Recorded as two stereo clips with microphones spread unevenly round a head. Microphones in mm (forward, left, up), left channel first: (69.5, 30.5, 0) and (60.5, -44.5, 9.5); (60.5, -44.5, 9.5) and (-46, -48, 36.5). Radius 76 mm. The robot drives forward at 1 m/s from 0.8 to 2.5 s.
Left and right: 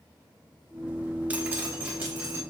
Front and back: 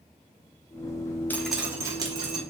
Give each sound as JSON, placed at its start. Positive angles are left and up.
{"t": 1.3, "sound": "dripping", "azimuth_deg": -85, "distance_m": 0.7}